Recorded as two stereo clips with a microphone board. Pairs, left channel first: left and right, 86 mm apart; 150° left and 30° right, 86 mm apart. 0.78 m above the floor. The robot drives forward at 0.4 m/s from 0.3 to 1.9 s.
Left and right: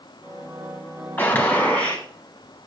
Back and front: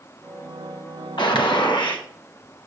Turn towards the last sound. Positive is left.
turn(degrees=160)